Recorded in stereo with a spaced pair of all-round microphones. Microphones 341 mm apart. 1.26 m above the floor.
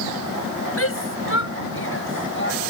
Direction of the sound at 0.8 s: 40° left (ahead or behind).